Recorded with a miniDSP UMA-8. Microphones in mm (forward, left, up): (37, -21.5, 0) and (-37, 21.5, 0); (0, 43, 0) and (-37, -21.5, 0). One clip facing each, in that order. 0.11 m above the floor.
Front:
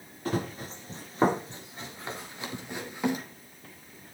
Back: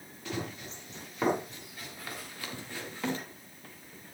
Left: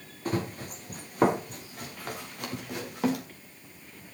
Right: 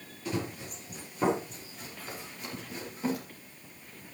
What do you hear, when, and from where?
0.2 s running footsteps: 20° left, 4 m; by 3.2 s 45° left, 4.5 m